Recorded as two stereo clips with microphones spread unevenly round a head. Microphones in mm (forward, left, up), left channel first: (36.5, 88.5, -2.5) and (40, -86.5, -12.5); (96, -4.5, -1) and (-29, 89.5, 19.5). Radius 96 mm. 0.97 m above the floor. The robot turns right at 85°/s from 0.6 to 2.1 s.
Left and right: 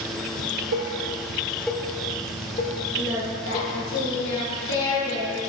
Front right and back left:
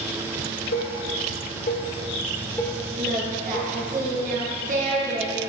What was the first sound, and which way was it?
Dishes clattering, 85° right.